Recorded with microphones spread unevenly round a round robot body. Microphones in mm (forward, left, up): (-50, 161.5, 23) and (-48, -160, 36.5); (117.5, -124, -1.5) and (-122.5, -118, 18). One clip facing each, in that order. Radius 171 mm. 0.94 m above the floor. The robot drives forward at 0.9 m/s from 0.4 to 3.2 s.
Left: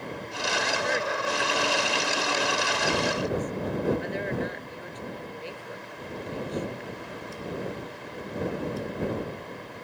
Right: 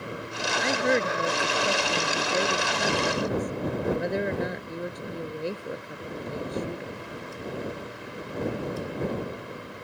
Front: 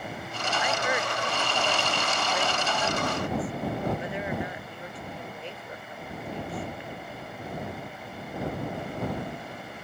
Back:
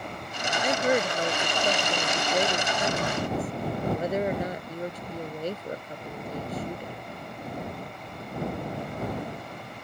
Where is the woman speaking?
125° right; by 7.0 s 130° right.